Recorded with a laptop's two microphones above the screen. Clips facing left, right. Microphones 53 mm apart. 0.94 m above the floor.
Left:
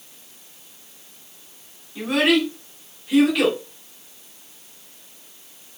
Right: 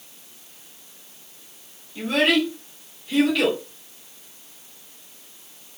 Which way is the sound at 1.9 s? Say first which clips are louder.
Left 1 dB; 10° left (ahead or behind).